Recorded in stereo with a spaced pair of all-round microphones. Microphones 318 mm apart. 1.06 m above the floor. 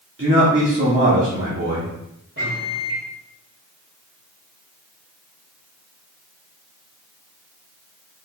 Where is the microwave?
40° right (ahead or behind), 3.5 m.